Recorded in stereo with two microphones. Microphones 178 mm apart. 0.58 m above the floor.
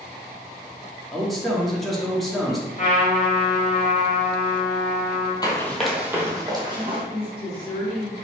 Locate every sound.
1.1 s a man speaking: centre (ahead or behind), 1.0 m
2.8 s a trumpet: 40° left (ahead or behind), 1.7 m
5.4 s running footsteps: 25° left (ahead or behind), 0.8 m; by 7.0 s 30° right (ahead or behind), 1.5 m
6.7 s a woman speaking: 30° left (ahead or behind), 1.7 m